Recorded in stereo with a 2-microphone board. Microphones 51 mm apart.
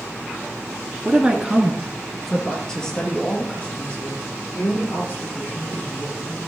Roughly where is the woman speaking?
Right.